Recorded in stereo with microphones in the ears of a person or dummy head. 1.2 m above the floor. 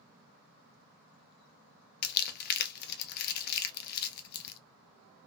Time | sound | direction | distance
2.0 | crumpling | 55° left (ahead or behind) | 0.5 m